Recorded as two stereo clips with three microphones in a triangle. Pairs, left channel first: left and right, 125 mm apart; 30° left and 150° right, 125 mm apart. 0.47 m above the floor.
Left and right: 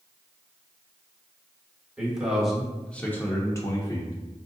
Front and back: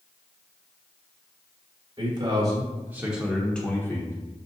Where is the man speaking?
170° right, 1.1 m; by 4.1 s 70° left, 0.9 m.